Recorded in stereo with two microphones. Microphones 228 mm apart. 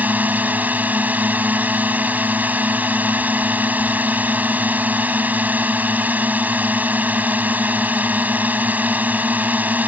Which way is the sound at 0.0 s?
5° right (ahead or behind).